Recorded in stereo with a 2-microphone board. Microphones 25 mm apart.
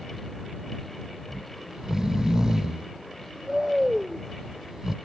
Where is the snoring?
20° right (ahead or behind).